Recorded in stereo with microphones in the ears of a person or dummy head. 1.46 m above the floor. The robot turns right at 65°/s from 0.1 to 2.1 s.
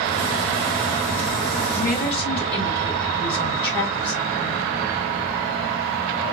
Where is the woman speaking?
Centre (ahead or behind), 5 m; by 4.6 s 30° left (ahead or behind), 5 m.